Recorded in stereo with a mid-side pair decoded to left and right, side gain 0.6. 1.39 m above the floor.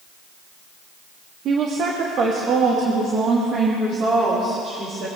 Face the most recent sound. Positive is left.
turn(degrees=-45)